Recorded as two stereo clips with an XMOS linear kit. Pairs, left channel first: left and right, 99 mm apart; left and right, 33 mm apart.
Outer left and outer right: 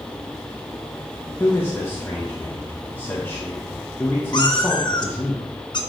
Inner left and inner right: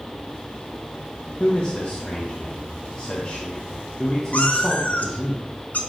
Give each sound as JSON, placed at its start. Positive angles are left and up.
{"t": 1.4, "sound": "a man speaking", "side_deg": 25, "distance_m": 1.4}
{"t": 4.3, "sound": "a cat meowing", "side_deg": 50, "distance_m": 1.2}